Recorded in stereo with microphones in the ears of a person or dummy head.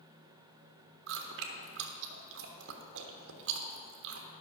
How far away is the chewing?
About 1.2 m.